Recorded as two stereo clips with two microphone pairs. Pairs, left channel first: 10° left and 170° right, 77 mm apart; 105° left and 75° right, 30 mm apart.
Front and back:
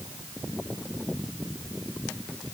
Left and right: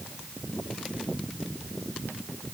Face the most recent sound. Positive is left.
No sound to turn to.